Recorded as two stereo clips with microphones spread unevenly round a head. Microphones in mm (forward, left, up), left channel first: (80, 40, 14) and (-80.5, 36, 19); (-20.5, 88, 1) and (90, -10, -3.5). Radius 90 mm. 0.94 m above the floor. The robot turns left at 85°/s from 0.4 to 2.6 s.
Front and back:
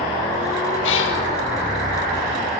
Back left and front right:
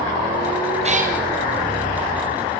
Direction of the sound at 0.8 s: 5° left.